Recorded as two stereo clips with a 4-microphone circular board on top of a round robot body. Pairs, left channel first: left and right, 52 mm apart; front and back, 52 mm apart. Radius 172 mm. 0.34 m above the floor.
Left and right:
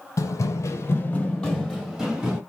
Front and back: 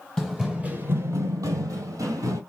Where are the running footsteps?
85° left, 0.8 m; by 2.4 s 165° right, 1.4 m.